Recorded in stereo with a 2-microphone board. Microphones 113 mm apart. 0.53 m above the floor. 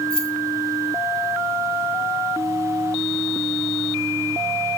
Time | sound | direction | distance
0.1 | keys jangling | 55° left (ahead or behind) | 3 m